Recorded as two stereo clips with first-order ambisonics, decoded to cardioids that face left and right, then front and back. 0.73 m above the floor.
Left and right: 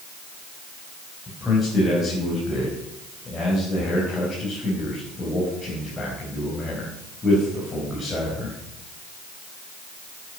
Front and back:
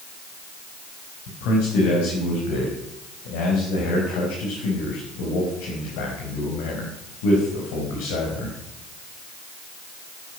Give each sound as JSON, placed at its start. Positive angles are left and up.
{"t": 1.3, "sound": "a man speaking", "azimuth_deg": 15, "distance_m": 4.0}